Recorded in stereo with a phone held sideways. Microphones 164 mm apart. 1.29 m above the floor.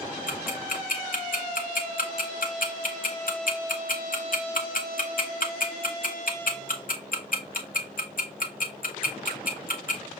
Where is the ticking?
65° left (ahead or behind), 0.9 m.